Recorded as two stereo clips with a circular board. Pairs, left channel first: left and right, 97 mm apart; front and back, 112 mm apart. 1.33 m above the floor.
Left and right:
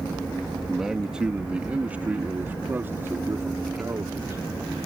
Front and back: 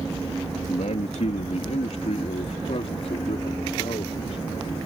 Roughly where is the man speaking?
Ahead.